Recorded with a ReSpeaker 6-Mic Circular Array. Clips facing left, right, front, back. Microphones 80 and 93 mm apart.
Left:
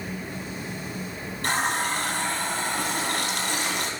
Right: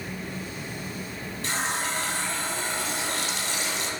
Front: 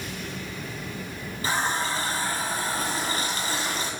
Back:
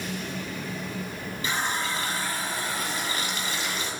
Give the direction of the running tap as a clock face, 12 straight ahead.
10 o'clock.